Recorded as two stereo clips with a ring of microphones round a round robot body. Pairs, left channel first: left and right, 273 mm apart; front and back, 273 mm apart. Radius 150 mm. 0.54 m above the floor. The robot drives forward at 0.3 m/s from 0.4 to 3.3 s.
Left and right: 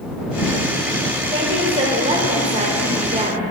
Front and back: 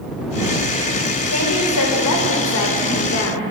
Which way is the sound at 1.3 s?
20° right.